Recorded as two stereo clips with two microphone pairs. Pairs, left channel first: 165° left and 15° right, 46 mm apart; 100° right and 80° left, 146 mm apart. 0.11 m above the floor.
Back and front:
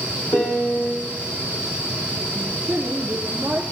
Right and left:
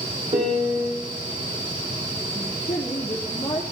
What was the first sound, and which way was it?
A piano, 120° left.